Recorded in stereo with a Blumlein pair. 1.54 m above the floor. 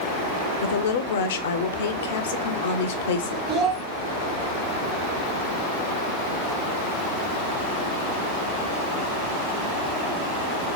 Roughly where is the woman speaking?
Ahead left.